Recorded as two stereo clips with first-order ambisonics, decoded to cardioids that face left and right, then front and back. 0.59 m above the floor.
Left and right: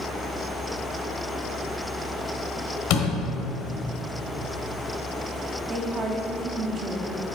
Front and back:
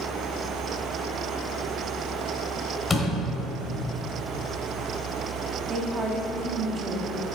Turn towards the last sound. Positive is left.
turn(degrees=-120)